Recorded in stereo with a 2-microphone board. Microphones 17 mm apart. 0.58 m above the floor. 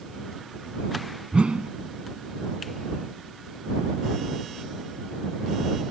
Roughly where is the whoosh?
Right.